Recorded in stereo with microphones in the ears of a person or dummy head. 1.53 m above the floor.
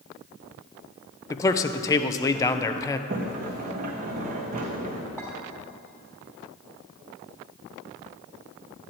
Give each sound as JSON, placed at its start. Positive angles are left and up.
{"t": 1.3, "sound": "a man speaking", "side_deg": 15, "distance_m": 0.7}
{"t": 3.1, "sound": "a sliding door", "side_deg": -40, "distance_m": 1.3}
{"t": 5.2, "sound": "a clink", "side_deg": -5, "distance_m": 1.5}